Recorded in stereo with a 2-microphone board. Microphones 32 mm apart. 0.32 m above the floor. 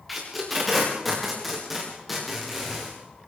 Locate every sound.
0.1 s tape being pulled: 5° right (ahead or behind), 7.5 m